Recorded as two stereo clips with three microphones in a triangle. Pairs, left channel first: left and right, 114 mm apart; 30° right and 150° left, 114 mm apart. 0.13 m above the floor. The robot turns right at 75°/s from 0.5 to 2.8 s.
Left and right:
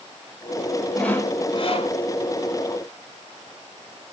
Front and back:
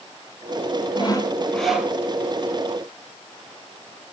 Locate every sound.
0.9 s sawing: 5° left, 1.7 m; by 1.9 s 80° left, 1.7 m